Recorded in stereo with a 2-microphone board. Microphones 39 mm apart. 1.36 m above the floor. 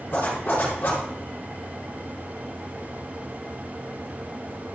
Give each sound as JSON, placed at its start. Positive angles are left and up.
{"t": 0.1, "sound": "a zipper", "side_deg": 55, "distance_m": 4.0}